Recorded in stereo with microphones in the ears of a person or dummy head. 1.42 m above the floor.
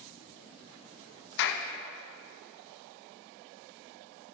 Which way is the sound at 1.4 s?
65° left (ahead or behind).